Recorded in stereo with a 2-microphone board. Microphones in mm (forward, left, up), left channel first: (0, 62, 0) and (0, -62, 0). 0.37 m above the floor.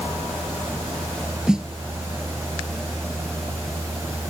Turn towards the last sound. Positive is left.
turn(degrees=-5)  # may be behind; listen again after turning